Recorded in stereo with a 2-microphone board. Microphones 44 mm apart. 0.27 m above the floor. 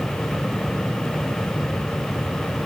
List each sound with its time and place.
Only background noise.